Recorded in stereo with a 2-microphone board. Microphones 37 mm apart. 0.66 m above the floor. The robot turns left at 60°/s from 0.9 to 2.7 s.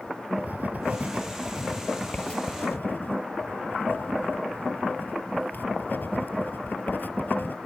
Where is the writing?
50° right (ahead or behind); by 7.5 s 60° left (ahead or behind).